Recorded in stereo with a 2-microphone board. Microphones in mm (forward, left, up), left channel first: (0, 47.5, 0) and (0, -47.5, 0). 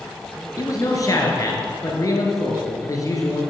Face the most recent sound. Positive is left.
turn(degrees=35)  # may be behind; listen again after turning